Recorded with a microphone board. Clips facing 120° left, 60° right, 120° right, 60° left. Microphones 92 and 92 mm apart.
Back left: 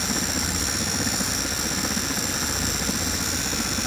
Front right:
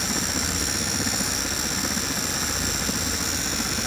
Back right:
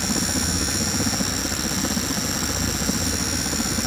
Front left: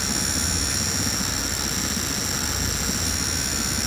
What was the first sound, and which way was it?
A helicopter, 155° right.